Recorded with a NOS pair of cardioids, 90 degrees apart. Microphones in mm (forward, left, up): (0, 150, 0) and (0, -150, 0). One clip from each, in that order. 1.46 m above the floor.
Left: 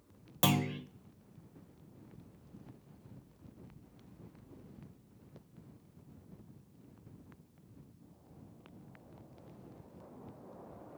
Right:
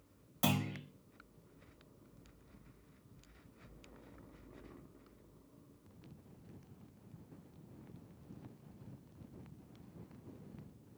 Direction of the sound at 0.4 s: 55° left.